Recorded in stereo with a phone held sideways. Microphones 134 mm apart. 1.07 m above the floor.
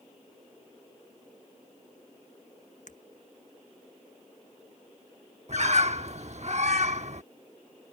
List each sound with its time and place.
2.9 s breaking glass: 65° left (ahead or behind)
5.5 s a bird: 55° right (ahead or behind)